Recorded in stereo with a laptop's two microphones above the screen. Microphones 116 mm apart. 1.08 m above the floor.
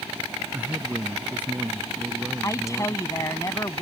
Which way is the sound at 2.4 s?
30° left (ahead or behind).